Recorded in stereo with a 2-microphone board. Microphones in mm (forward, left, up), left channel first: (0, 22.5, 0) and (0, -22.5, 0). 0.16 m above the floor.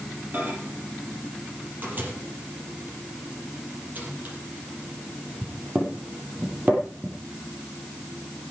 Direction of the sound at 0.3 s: 40° right (ahead or behind).